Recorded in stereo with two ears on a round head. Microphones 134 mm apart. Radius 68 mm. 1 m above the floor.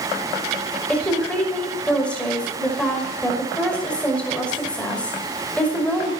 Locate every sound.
0.9 s a woman speaking: 10° left (ahead or behind), 5.5 m